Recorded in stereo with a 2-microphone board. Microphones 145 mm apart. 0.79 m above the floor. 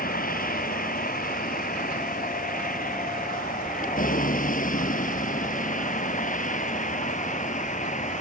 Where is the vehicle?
80° left; by 8.2 s 60° left (ahead or behind).